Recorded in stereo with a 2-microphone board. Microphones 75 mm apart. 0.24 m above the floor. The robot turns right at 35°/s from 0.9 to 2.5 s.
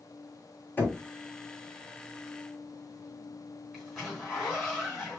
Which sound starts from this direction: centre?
A zipper, at 3.7 s.